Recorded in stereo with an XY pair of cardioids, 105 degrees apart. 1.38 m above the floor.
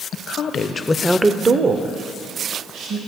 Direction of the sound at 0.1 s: 65° left.